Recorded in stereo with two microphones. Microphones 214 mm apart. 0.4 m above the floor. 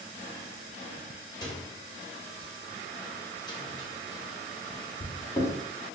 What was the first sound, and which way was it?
A microwave, 20° left (ahead or behind).